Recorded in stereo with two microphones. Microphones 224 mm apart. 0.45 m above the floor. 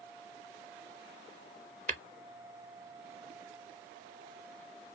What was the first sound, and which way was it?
Tapping, 35° right (ahead or behind).